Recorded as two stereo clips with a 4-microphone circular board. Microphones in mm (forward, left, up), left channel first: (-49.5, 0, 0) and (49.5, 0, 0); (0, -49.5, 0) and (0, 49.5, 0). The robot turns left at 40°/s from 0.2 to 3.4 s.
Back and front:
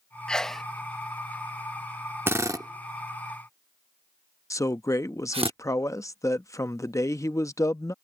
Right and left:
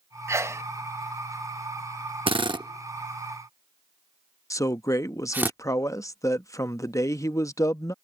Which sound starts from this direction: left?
A sneeze, at 0.3 s.